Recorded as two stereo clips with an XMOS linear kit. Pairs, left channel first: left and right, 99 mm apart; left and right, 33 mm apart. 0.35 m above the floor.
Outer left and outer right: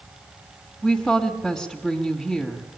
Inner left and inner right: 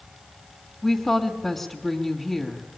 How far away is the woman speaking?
About 2.0 m.